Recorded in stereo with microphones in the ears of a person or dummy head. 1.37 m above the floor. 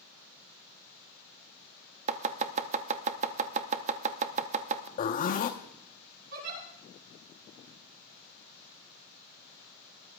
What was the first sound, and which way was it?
Chopping, 40° right (ahead or behind).